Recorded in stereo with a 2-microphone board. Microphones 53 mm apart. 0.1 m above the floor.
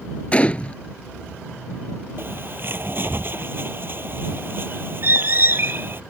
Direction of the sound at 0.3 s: 25° left (ahead or behind).